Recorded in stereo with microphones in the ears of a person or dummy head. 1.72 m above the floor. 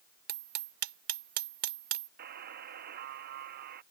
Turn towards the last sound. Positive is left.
turn(degrees=-50)  # may be behind; listen again after turning